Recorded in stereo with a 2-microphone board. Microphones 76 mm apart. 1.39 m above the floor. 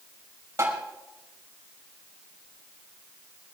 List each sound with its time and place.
0.6 s tapping: 40° right (ahead or behind), 5 m